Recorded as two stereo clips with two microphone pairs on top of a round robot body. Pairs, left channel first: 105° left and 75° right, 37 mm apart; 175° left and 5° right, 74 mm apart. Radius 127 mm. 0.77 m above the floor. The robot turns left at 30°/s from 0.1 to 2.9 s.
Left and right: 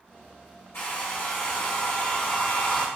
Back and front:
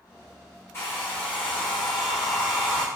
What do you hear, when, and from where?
0.7 s a hair dryer: 115° left, 0.9 m; by 2.9 s 50° left, 0.9 m